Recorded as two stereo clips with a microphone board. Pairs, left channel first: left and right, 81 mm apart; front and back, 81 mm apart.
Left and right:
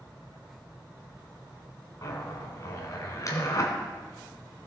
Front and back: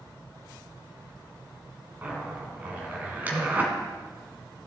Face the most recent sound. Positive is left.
turn(degrees=115)